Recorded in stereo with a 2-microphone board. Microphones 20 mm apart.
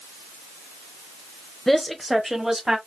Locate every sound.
1.7 s a woman speaking: 10° left (ahead or behind), 1.0 m; by 2.8 s 30° right (ahead or behind), 1.7 m